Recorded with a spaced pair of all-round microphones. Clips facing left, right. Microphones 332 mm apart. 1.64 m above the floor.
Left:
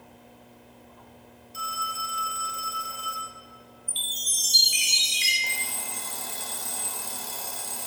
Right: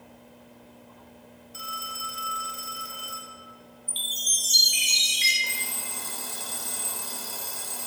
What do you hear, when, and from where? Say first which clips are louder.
1.5 s a phone ringing: left 4 dB; 70° right (ahead or behind), 1.5 m
3.9 s a chime: right 1 dB; 40° left (ahead or behind), 1.2 m
5.4 s an alarm clock: left 1 dB; 20° right (ahead or behind), 1.1 m